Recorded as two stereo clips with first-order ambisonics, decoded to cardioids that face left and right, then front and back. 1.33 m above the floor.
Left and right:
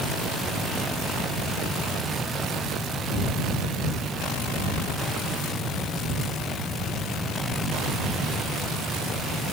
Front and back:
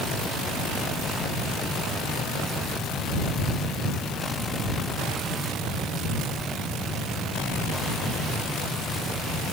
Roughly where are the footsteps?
No footsteps in this recording.